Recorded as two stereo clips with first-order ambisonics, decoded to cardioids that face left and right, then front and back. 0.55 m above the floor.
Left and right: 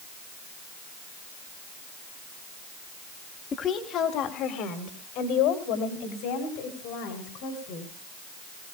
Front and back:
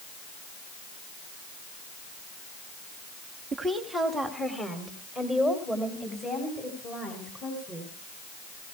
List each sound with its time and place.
3.5 s a woman speaking: 120° left, 1.3 m; by 7.9 s 65° left, 5.5 m